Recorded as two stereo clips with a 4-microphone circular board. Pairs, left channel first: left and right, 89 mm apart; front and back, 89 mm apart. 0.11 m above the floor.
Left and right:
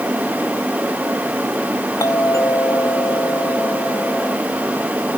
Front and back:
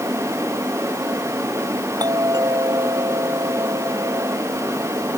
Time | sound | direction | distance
2.0 | a doorbell | 140° left | ?